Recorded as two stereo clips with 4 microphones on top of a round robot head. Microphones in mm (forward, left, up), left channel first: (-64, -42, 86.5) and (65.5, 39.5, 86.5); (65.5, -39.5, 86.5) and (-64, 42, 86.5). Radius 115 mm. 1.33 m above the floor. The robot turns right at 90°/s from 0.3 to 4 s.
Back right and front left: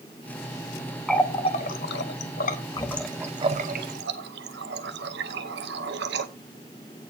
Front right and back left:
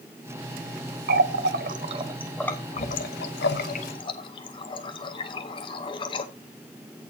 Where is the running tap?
125° left, 0.7 m; by 6.3 s 25° left, 0.7 m.